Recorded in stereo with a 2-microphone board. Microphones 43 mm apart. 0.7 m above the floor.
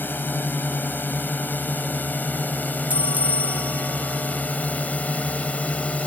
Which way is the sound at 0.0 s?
50° left (ahead or behind).